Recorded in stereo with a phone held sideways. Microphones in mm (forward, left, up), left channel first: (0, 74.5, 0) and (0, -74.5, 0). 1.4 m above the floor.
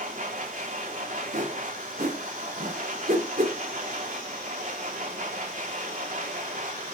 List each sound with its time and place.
0.0 s a machine running: 65° right (ahead or behind), 3 m
1.3 s a whoosh: 65° right (ahead or behind), 3 m